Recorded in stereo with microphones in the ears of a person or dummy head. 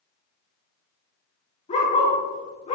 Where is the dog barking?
35° left (ahead or behind), 5 m.